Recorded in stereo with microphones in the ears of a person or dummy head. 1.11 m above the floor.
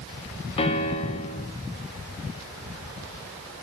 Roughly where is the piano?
Left.